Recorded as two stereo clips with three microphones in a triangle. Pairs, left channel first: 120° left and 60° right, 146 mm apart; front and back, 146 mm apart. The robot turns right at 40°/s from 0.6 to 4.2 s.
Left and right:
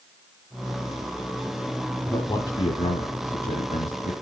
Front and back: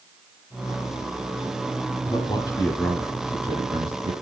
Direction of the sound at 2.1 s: 45° left.